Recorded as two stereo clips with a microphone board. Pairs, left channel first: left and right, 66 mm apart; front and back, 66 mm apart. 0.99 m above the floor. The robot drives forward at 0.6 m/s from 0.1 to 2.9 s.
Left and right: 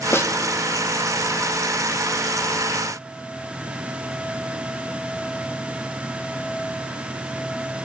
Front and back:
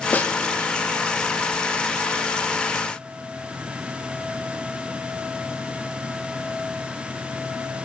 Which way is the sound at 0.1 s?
55° left.